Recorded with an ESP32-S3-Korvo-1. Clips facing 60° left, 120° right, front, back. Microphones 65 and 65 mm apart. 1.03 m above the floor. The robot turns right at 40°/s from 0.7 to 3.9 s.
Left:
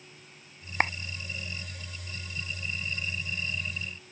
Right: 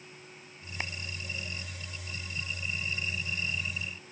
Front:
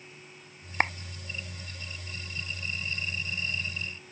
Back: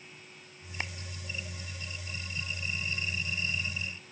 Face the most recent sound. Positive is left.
turn(degrees=155)